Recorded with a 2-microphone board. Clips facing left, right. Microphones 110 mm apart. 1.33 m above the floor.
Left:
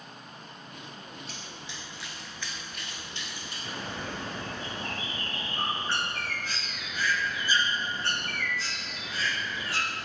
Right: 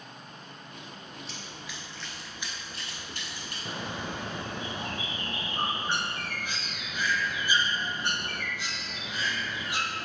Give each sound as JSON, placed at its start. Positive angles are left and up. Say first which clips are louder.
{"t": 1.3, "sound": "running footsteps", "louder": "even", "side_deg": 45, "distance_m": 1.8}
{"t": 3.6, "sound": "a bird", "louder": "right 1 dB", "side_deg": -15, "distance_m": 0.7}